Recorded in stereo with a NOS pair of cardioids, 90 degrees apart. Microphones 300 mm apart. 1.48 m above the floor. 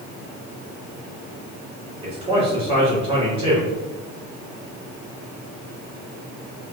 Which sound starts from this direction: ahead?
A man speaking, at 2.0 s.